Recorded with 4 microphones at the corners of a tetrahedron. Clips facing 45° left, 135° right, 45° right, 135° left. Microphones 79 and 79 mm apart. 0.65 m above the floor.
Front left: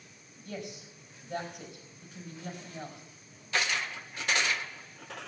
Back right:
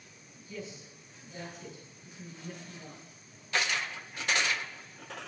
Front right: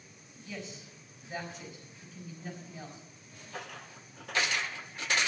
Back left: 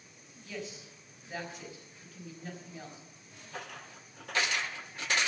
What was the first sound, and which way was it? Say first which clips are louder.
A woman speaking: front left 2 dB, back left 1 dB; 50° left.